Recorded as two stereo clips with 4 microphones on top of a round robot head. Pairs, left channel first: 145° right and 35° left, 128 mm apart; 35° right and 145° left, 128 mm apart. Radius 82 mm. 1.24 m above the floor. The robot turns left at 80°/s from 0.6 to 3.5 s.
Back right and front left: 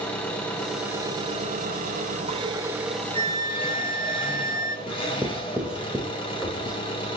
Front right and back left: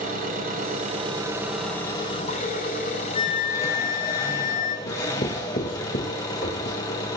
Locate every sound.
0.0 s an engine running: 135° left, 7 m; by 7.2 s 95° right, 7 m
3.1 s a flute: straight ahead, 2.5 m; by 4.8 s 25° right, 2.5 m
4.9 s writing: 45° right, 4.5 m